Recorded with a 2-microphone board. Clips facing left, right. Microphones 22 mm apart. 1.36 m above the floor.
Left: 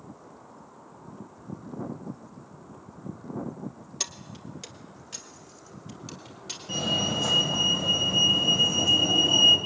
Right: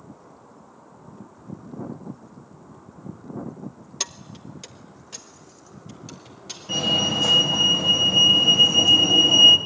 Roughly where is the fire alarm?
Centre.